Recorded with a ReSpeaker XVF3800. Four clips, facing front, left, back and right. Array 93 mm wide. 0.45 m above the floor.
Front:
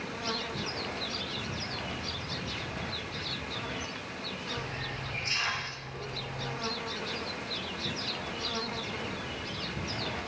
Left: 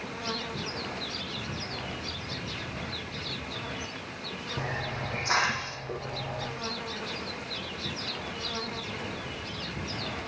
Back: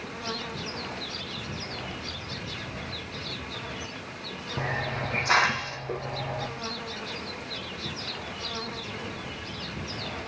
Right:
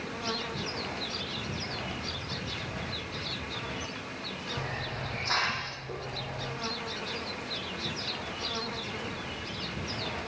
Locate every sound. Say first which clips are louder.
4.6 s a hiss: left 4 dB, back 7 dB; 170° left, 5.5 m